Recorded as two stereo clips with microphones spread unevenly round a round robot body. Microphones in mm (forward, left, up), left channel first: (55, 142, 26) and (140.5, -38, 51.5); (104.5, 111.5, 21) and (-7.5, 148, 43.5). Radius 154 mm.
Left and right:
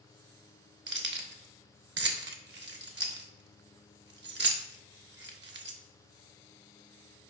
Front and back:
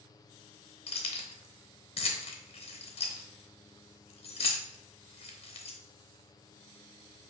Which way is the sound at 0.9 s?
35° right.